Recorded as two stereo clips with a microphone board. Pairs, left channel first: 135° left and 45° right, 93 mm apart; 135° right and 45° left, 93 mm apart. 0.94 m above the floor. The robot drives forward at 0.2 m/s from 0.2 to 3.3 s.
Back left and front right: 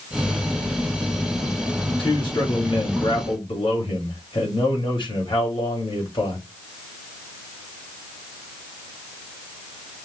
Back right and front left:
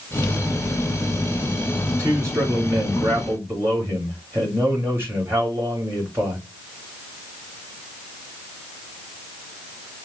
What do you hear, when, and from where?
1.9 s a man speaking: 105° left, 2.5 m; by 6.5 s 110° left, 2.5 m